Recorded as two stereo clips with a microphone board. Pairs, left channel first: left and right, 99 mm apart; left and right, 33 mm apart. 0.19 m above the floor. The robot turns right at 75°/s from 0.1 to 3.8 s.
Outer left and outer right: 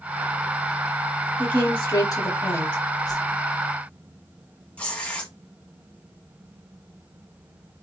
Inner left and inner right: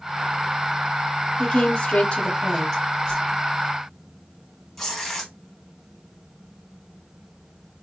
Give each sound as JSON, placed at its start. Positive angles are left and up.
{"t": 1.4, "sound": "a woman speaking", "azimuth_deg": 35, "distance_m": 1.1}
{"t": 3.1, "sound": "a whoosh", "side_deg": 45, "distance_m": 1.4}
{"t": 4.8, "sound": "tearing paper", "side_deg": 15, "distance_m": 1.0}